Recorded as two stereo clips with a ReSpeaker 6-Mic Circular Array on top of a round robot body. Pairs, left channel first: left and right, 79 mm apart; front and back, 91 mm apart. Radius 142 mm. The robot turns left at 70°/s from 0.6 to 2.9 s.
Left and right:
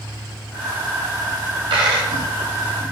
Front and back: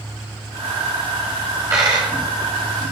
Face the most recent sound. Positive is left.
turn(degrees=155)